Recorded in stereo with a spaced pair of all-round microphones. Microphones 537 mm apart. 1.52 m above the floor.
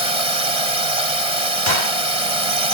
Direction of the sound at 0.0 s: 80° right.